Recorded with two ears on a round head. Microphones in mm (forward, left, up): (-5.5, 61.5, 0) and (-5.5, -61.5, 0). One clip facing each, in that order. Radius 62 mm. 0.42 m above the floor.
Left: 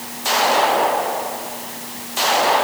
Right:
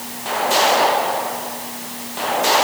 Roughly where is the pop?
No pop in this recording.